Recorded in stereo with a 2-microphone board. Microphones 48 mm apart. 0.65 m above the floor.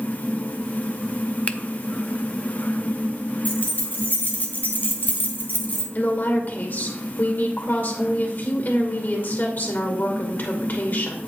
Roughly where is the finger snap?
Left.